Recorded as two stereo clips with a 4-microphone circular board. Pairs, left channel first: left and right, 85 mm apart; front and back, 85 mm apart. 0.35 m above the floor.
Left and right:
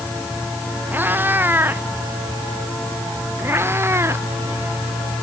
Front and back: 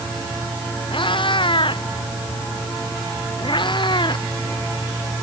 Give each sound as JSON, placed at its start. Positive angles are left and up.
{"t": 0.9, "sound": "a cat meowing", "azimuth_deg": -20}